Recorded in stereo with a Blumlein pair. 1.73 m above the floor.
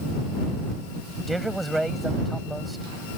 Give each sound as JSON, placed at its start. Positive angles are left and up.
{"t": 1.3, "sound": "a man speaking", "azimuth_deg": -5}